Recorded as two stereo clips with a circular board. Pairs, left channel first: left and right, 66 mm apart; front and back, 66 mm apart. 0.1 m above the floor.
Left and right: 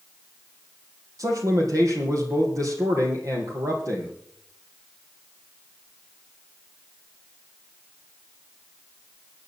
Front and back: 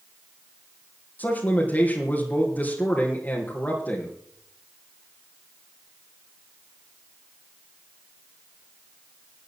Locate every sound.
1.2 s a man speaking: 65° right, 3.5 m